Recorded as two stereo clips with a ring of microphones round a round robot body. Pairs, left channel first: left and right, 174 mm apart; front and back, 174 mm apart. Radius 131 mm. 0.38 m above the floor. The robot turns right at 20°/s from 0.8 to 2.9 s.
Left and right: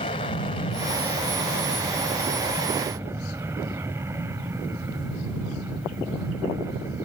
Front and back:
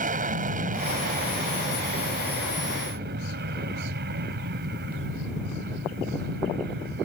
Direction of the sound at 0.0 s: 150° left.